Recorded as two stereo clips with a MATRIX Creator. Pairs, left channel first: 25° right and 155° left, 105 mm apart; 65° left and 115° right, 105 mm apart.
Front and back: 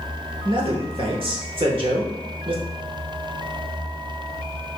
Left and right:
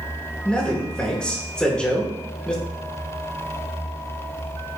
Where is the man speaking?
150° left, 1.2 m.